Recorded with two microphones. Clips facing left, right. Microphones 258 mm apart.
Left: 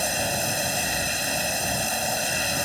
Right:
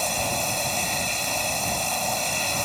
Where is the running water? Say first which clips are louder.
Left 1 dB; 10° left (ahead or behind).